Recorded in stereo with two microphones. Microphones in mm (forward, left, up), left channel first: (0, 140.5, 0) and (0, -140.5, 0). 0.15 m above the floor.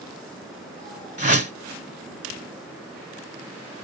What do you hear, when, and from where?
1.2 s a whoosh: 25° right (ahead or behind), 1.6 m